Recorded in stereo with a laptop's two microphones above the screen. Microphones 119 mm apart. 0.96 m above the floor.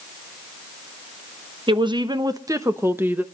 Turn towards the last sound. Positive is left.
turn(degrees=-15)  # may be behind; listen again after turning